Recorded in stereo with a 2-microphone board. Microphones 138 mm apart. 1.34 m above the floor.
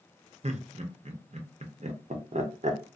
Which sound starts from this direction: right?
Laughter, at 0.4 s.